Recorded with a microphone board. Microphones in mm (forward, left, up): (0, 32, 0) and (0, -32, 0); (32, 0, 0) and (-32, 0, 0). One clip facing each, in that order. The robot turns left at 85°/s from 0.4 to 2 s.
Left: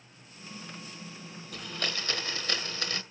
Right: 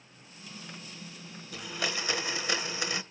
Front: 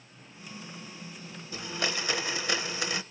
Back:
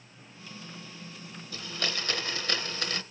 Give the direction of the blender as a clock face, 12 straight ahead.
12 o'clock.